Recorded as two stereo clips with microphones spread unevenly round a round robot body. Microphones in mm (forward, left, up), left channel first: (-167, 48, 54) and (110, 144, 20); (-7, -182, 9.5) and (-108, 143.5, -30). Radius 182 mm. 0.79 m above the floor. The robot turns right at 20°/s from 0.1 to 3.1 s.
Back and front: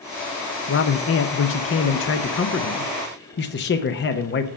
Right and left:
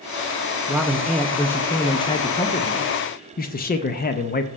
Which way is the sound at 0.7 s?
175° right.